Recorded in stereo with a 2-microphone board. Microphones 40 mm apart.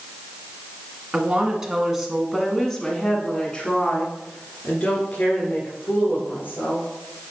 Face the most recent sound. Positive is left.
turn(degrees=55)  # may be behind; listen again after turning